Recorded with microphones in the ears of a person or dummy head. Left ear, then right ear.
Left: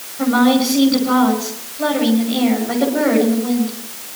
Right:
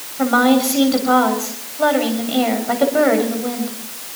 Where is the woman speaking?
30° right (ahead or behind), 6.5 m.